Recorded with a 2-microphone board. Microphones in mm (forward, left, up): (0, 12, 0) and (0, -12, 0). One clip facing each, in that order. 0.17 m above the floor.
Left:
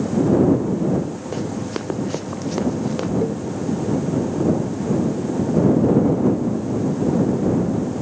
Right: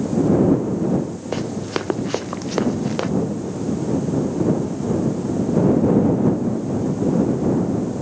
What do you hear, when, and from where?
1.3 s running footsteps: 25° right (ahead or behind); by 3.1 s 20° right (ahead or behind)
3.2 s a cowbell: 55° left (ahead or behind)